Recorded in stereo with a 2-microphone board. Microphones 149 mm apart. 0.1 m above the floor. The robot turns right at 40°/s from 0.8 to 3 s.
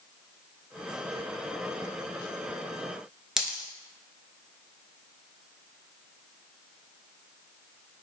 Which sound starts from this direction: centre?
A dropped coin, at 3.4 s.